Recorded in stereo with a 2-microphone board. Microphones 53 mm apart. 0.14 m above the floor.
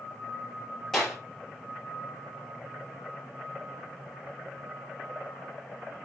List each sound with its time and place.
0.9 s a clap: 5° left (ahead or behind), 3 m